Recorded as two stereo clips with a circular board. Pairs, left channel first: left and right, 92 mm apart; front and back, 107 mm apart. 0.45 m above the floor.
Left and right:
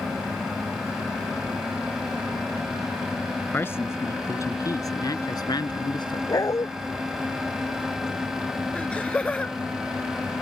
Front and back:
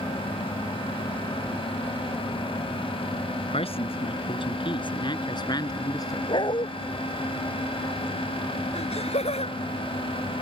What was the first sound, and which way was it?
A man speaking, 25° left.